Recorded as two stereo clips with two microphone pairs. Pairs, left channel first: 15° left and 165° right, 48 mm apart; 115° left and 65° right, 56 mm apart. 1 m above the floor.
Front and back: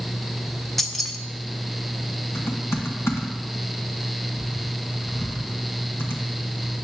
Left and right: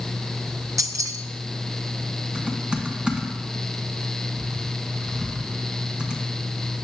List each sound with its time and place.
0.8 s keys jangling: 70° right, 0.7 m
2.4 s typing on a keyboard: 10° left, 1.8 m